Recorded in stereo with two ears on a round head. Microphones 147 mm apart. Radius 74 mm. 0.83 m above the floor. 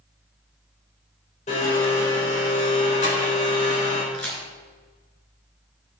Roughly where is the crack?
Centre.